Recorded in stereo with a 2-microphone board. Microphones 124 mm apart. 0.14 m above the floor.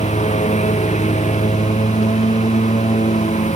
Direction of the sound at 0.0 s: 65° left (ahead or behind).